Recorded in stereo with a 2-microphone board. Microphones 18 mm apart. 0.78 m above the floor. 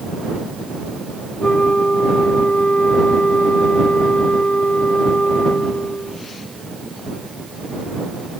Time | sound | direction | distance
1.4 | a flute | 80° left | ?